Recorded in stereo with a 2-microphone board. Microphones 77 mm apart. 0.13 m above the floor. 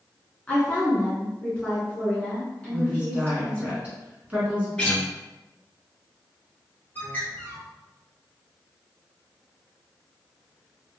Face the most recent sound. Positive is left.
turn(degrees=25)  # may be behind; listen again after turning